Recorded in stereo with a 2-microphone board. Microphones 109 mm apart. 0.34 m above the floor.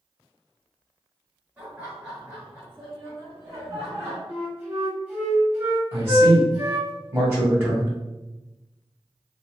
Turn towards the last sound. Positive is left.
turn(degrees=-25)  # may be behind; listen again after turning